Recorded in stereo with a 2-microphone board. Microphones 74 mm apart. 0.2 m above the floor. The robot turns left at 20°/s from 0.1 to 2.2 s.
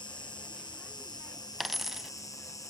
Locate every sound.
0.0 s an insect: 90° left, 1.3 m; by 2.7 s 50° left, 1.3 m
1.6 s a dropped coin: centre (ahead or behind), 0.6 m; by 2.1 s 5° right (ahead or behind), 0.6 m